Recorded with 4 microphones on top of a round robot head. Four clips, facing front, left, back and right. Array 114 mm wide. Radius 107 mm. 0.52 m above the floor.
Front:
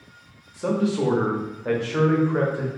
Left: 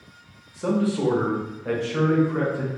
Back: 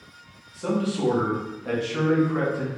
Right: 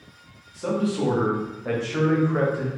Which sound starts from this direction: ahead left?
A man speaking, at 0.5 s.